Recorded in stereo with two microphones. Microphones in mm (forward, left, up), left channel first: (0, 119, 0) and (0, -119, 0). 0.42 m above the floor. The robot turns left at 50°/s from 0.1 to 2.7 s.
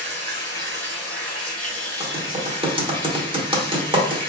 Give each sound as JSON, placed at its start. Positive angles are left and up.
{"t": 0.0, "sound": "running water", "azimuth_deg": -30, "distance_m": 1.7}
{"t": 2.0, "sound": "typing on a keyboard", "side_deg": -25, "distance_m": 1.0}